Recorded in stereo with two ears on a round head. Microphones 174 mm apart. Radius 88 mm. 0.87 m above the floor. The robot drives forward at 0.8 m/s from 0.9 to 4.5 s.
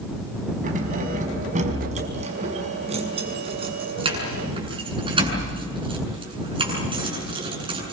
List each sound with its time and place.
0.6 s keys jangling: 45° right (ahead or behind), 4.5 m; by 7.9 s 30° right (ahead or behind), 7 m